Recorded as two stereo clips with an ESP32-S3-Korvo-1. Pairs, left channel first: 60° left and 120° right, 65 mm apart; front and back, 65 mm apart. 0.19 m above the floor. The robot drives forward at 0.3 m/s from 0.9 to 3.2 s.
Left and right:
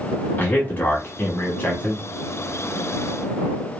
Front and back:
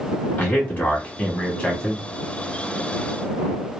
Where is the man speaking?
35° left, 1.1 m; by 2.0 s 70° left, 1.0 m.